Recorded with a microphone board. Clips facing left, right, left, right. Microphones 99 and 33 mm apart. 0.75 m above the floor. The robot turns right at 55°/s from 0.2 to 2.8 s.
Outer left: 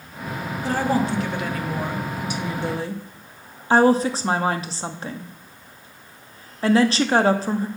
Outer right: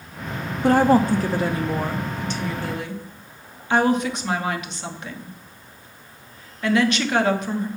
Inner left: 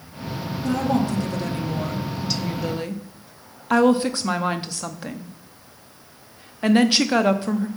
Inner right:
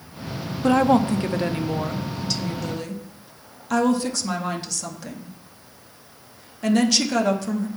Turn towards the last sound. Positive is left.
turn(degrees=40)